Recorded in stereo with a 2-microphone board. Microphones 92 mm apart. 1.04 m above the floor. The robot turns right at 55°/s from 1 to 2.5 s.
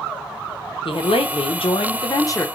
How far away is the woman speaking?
About 0.8 m.